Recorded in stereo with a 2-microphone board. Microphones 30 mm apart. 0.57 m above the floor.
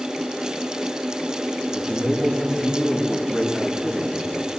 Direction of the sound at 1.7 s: 10° left (ahead or behind).